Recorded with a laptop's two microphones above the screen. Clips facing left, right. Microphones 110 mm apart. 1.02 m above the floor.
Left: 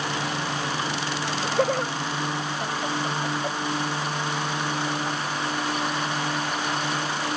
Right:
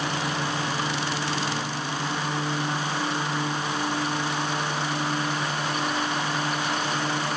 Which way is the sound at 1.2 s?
80° left.